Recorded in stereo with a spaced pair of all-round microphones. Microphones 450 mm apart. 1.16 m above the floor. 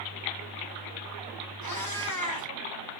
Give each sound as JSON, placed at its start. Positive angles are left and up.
{"t": 1.6, "sound": "a cat meowing", "side_deg": -50, "distance_m": 1.5}